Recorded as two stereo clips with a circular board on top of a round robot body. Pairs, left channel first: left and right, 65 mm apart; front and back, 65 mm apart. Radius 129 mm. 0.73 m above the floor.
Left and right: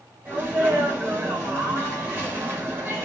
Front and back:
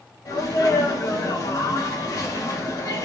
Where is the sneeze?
25° right, 6 m.